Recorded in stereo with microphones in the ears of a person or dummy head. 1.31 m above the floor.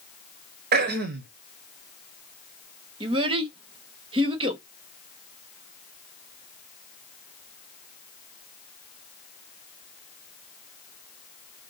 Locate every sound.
0.7 s throat clearing: 50° right (ahead or behind), 0.7 m
3.0 s a child speaking: 20° right (ahead or behind), 0.9 m